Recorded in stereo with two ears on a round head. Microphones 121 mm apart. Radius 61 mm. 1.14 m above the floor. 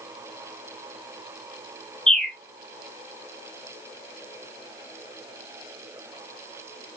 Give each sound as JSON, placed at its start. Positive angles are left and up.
{"t": 2.1, "sound": "a bird", "side_deg": 5, "distance_m": 0.7}